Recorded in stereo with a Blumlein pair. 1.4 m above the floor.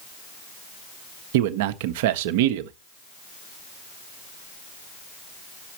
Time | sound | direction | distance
1.3 | a man speaking | 50° right | 1.0 m